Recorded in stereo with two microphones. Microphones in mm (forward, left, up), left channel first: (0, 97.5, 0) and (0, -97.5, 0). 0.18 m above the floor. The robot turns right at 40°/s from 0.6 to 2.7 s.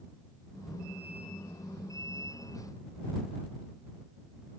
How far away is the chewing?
I don't hear chewing.